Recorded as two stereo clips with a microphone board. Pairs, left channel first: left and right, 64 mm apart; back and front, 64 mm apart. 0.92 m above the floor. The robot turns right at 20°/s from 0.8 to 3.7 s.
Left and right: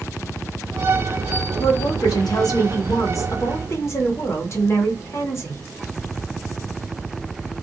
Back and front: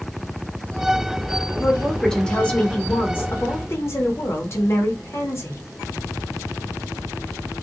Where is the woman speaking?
90° left, 0.9 m; by 5.6 s 135° left, 0.9 m.